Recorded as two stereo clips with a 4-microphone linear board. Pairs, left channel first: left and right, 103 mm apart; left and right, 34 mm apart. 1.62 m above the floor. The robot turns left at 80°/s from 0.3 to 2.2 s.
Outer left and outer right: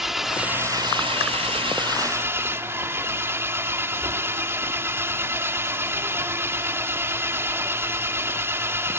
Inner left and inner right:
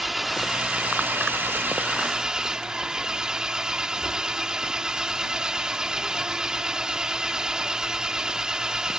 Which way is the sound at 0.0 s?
5° right.